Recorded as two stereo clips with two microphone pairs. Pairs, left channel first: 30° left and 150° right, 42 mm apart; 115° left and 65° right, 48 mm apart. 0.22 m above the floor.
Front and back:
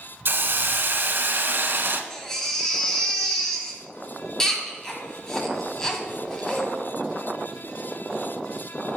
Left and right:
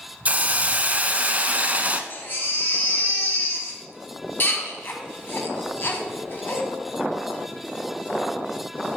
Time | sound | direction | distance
0.2 | a hiss | 115° right | 0.5 m
2.1 | a baby crying | 100° left | 1.1 m